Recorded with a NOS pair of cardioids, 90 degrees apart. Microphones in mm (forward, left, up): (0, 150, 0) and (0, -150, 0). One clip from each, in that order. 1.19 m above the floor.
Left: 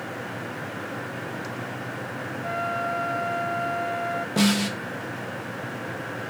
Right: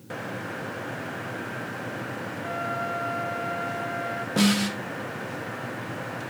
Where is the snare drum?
5° left, 2 m.